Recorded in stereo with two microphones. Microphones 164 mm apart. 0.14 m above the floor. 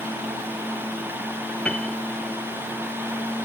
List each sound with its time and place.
1.6 s a piano: 5° left (ahead or behind)